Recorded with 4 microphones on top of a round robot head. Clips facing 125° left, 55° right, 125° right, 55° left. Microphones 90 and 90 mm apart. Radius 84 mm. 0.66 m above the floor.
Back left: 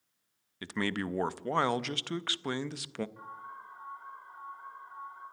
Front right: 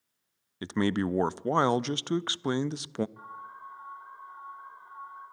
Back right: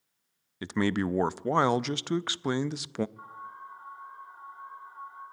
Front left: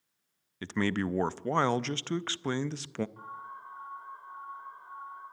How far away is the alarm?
About 9.5 m.